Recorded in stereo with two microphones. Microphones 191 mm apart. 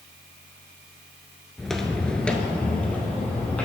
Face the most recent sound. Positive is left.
turn(degrees=5)  # may be behind; listen again after turning